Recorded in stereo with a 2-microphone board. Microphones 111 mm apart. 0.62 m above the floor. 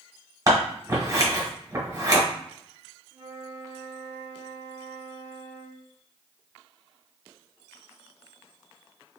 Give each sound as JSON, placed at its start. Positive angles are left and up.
{"t": 0.5, "sound": "scissors", "side_deg": -35, "distance_m": 1.6}
{"t": 3.1, "sound": "a flute", "side_deg": -35, "distance_m": 1.6}